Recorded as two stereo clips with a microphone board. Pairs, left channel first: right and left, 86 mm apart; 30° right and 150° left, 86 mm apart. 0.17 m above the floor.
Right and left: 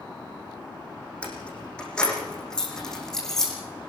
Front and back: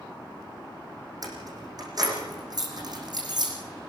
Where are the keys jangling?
165° right, 6.5 m; by 3.5 s 175° right, 7 m.